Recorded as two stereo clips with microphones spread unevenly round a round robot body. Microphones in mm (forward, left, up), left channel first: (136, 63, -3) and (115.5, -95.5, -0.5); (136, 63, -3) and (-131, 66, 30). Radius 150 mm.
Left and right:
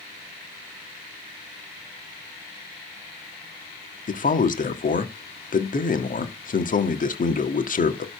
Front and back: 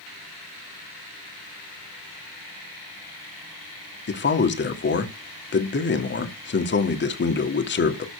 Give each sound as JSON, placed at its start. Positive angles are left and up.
{"t": 4.1, "sound": "a man speaking", "azimuth_deg": 45, "distance_m": 1.9}